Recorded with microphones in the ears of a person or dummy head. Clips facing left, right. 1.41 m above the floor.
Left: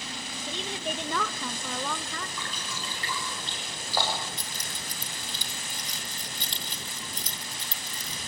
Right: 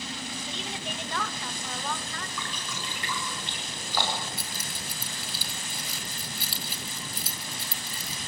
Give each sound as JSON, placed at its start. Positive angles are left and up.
{"t": 0.5, "sound": "a woman speaking", "side_deg": 75, "distance_m": 1.4}
{"t": 2.4, "sound": "dripping", "side_deg": 30, "distance_m": 6.5}
{"t": 4.4, "sound": "keys jangling", "side_deg": -5, "distance_m": 1.7}